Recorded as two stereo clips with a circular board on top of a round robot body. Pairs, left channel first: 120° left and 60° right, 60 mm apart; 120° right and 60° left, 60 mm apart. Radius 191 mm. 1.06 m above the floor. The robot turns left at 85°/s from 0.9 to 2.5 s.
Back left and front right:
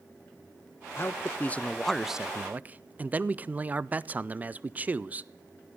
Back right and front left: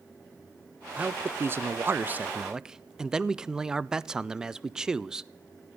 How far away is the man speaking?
About 0.5 m.